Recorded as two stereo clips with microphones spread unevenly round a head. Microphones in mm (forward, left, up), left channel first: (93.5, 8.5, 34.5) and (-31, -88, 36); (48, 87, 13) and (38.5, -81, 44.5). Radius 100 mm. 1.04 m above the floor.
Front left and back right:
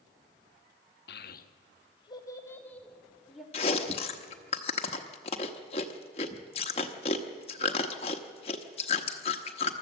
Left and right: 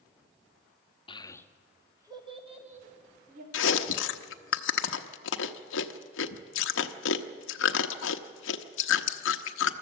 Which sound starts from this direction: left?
Chewing, at 3.5 s.